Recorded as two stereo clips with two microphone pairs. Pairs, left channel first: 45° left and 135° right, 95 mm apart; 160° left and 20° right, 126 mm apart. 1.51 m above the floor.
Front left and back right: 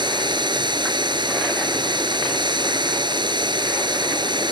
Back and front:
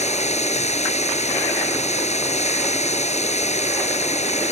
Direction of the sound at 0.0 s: 175° right.